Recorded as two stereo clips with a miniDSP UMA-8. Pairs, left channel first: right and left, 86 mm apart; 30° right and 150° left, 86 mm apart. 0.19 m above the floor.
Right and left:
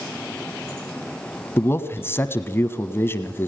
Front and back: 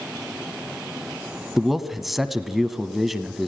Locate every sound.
1.6 s a man speaking: 125° right, 1.2 m